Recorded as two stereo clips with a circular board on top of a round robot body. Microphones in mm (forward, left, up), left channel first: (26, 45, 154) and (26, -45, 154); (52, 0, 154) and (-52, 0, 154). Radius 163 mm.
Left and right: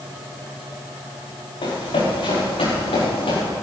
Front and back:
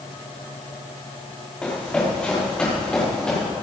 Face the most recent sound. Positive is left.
turn(degrees=80)